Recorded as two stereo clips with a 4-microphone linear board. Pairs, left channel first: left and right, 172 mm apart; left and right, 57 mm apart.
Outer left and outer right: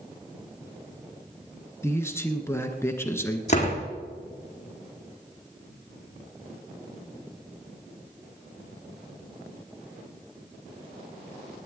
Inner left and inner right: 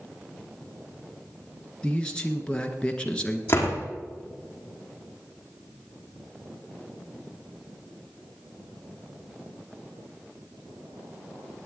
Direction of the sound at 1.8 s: 15° left (ahead or behind).